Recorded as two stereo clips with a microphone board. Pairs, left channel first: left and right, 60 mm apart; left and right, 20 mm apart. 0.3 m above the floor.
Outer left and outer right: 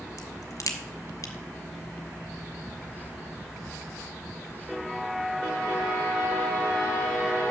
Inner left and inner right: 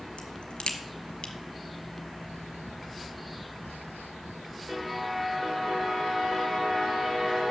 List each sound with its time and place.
0.2 s a crack: 65° left (ahead or behind), 1.1 m